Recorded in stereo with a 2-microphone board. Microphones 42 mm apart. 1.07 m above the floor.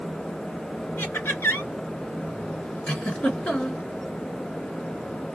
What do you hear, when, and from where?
1.0 s laughter: 65° left (ahead or behind), 2.5 m
2.9 s a giggle: 30° left (ahead or behind), 2.5 m